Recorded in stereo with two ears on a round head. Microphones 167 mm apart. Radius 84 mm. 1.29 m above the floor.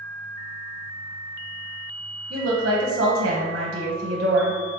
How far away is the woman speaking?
About 0.9 m.